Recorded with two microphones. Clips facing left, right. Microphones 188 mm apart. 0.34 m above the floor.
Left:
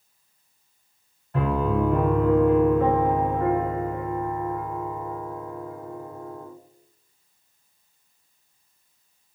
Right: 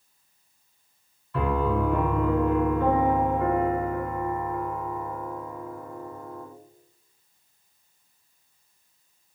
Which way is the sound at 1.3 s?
45° left (ahead or behind).